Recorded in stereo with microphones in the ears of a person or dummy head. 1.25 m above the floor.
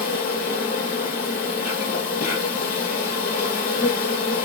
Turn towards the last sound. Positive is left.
turn(degrees=40)  # may be behind; listen again after turning